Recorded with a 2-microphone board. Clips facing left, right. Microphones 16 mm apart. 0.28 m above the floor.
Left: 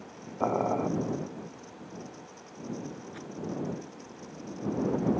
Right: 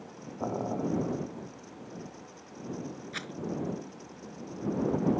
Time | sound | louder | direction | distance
0.4 | boiling | left 5 dB | 70° left (ahead or behind) | ?
3.1 | a rattle | right 4 dB | 75° right (ahead or behind) | ?